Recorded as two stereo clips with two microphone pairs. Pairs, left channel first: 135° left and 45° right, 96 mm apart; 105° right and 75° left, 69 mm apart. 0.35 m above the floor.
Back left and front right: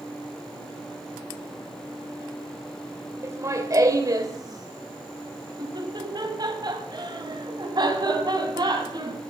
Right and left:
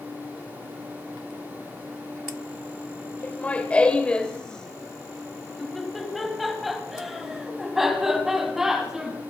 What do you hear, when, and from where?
3.2 s laughter: 65° right, 1.5 m; by 9.2 s 5° right, 3.5 m